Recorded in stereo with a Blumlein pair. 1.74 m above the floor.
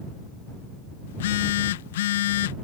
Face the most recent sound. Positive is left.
turn(degrees=55)